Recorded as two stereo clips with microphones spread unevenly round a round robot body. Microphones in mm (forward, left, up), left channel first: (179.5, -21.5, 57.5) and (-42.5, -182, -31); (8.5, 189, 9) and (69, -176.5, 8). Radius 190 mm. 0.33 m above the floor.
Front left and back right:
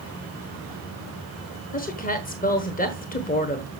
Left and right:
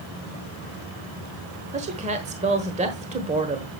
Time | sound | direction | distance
1.7 | a woman speaking | 30° right | 1.2 m